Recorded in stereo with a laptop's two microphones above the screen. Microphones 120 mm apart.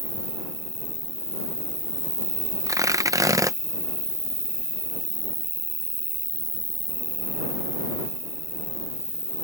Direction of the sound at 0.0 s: 50° right (ahead or behind).